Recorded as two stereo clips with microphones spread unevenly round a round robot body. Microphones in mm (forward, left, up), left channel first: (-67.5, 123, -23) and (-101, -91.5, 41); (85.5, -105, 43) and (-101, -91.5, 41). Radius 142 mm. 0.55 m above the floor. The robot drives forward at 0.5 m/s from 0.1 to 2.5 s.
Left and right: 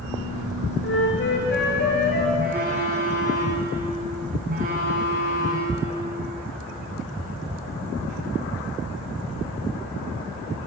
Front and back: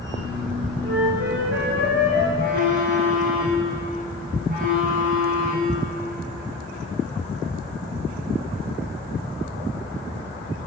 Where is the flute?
115° left, 4.5 m; by 2.3 s 125° left, 4.5 m.